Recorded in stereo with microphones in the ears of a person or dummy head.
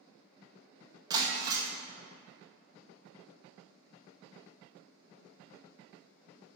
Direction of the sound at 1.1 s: 20° right (ahead or behind).